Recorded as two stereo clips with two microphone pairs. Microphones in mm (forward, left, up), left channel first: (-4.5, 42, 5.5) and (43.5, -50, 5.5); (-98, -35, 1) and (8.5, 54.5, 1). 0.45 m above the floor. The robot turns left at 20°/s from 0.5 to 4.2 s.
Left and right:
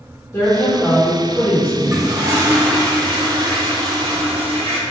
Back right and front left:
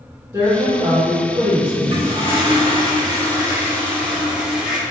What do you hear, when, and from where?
0.3 s a woman speaking: 90° left, 1.0 m; by 1.7 s 65° left, 1.0 m
1.8 s a toilet flushing: straight ahead, 0.9 m; by 4.8 s 45° right, 0.9 m